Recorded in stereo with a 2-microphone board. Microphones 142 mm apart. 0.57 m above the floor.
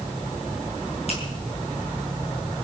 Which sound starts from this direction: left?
A finger snap, at 1.1 s.